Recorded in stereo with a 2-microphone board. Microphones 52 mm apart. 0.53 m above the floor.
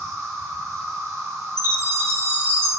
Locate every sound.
0.0 s an insect: 75° right (ahead or behind), 1.3 m
1.6 s a chime: 45° right (ahead or behind), 1.6 m